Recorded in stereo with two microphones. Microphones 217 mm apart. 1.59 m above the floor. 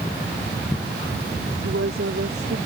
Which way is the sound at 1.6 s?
80° right.